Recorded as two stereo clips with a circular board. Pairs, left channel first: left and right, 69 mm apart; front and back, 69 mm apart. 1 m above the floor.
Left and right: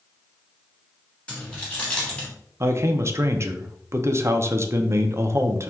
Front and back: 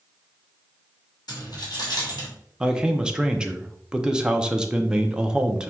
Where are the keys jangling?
20° left, 1.5 m.